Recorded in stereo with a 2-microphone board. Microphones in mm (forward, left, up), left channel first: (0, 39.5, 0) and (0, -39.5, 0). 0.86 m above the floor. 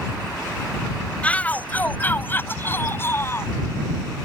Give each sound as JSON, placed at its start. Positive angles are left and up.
{"t": 1.2, "sound": "a shout", "side_deg": 20}